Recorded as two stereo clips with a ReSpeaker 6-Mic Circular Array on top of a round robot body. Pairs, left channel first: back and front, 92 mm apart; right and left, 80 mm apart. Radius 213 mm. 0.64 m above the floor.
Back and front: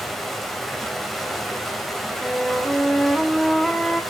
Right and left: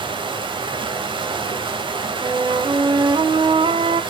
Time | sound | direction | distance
0.0 | running water | 90° left | 2.5 m
2.2 | a flute | 95° left | 2 m